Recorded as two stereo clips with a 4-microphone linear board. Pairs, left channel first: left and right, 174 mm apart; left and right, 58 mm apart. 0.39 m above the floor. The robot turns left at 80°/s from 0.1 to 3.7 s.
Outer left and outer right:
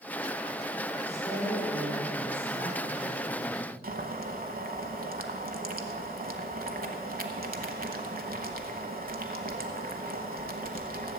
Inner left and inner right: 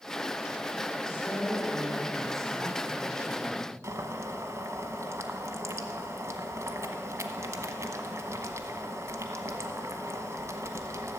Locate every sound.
1.0 s a woman speaking: 45° left, 3.5 m; by 3.7 s 165° right, 3.5 m
3.8 s boiling: 55° right (ahead or behind), 1.0 m